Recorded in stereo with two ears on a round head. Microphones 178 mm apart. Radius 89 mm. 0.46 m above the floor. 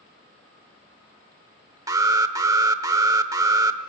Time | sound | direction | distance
1.9 | an alarm | 15° right (ahead or behind) | 0.9 m